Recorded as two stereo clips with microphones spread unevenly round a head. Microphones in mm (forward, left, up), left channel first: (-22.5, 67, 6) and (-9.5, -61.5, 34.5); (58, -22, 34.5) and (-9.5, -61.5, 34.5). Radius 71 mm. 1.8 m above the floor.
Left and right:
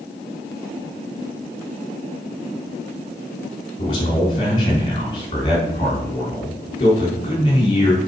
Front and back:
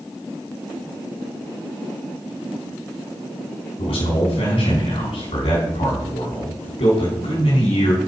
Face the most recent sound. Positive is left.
turn(degrees=35)